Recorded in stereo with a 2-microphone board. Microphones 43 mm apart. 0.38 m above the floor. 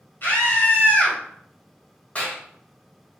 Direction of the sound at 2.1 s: 30° left (ahead or behind).